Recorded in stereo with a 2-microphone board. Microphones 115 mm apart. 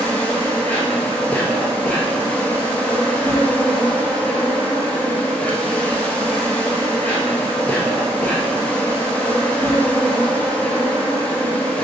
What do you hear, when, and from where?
0.0 s an insect: 10° left (ahead or behind), 0.9 m